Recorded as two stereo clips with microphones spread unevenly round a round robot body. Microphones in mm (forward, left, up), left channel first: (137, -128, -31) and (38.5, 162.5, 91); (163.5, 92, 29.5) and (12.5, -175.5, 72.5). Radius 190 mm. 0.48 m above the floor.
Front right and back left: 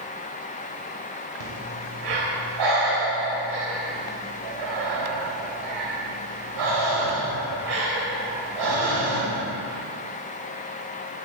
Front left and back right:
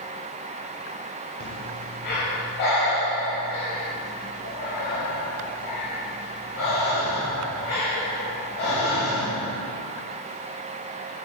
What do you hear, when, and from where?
1.4 s breathing: 115° left, 2.5 m